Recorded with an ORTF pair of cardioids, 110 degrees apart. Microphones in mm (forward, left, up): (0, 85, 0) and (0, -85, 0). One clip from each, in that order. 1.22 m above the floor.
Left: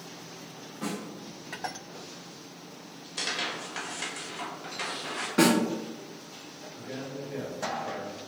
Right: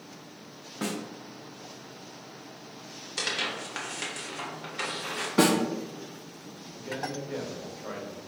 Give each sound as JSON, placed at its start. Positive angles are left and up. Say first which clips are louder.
{"t": 0.8, "sound": "a snare drum", "louder": "right 2 dB", "azimuth_deg": -60, "distance_m": 0.7}
{"t": 3.2, "sound": "tearing paper", "louder": "right 1 dB", "azimuth_deg": -25, "distance_m": 1.1}
{"t": 5.4, "sound": "a snare drum", "louder": "even", "azimuth_deg": -15, "distance_m": 1.3}
{"t": 6.7, "sound": "a man speaking", "louder": "right 5 dB", "azimuth_deg": -30, "distance_m": 1.1}